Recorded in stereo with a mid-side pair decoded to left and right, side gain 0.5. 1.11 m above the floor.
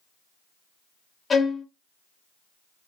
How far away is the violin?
About 0.8 m.